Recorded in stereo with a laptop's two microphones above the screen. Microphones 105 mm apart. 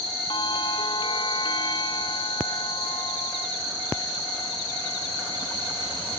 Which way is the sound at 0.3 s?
50° left (ahead or behind).